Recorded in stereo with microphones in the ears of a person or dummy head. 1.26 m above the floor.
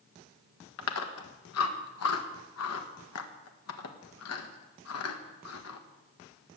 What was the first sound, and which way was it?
Chewing, 75° left (ahead or behind).